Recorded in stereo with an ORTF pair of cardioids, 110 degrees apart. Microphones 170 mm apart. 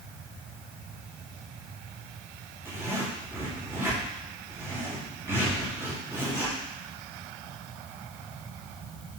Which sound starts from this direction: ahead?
A zipper, at 2.6 s.